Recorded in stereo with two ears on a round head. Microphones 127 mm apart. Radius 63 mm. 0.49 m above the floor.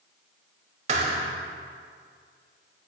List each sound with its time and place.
0.9 s a thud: 45° right (ahead or behind), 1.2 m